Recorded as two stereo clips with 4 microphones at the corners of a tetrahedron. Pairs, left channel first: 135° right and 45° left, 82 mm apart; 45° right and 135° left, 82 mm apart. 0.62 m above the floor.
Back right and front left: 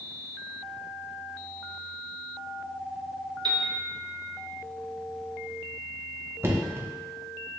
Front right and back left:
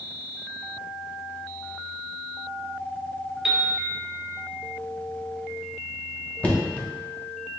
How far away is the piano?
About 0.6 m.